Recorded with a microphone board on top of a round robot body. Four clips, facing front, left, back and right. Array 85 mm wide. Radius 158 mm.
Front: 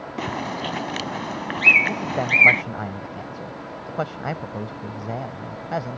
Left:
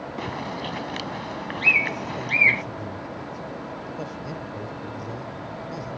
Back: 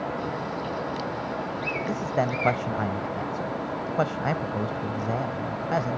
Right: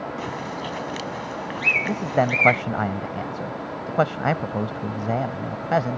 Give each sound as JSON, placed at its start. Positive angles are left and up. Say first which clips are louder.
{"t": 0.2, "sound": "a bird", "louder": "right 1 dB, front 2 dB", "azimuth_deg": 10}
{"t": 1.9, "sound": "a man speaking", "louder": "right 8 dB, front 1 dB", "azimuth_deg": -95}